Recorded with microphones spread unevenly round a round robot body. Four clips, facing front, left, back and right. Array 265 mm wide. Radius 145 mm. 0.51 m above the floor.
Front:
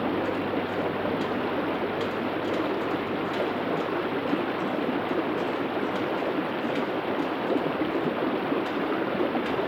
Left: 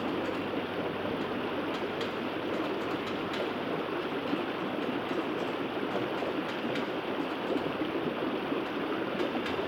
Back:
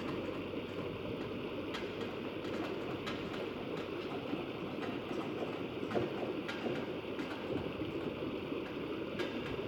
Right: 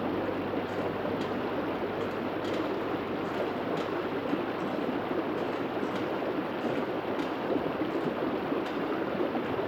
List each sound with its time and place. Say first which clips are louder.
0.0 s running water: right 1 dB, front 13 dB; 5° left